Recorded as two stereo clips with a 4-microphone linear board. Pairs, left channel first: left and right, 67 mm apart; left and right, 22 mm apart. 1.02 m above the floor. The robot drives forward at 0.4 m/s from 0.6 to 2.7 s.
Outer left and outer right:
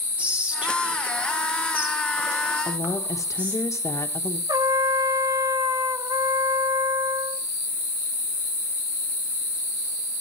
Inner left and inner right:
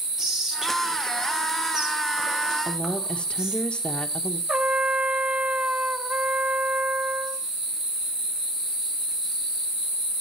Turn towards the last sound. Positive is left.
turn(degrees=-70)  # may be behind; listen again after turning